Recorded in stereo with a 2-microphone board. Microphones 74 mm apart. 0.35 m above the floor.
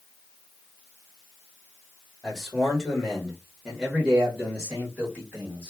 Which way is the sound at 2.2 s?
5° left (ahead or behind).